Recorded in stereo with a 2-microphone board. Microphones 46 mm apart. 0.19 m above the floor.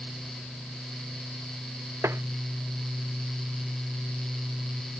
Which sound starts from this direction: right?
Tapping, at 2.0 s.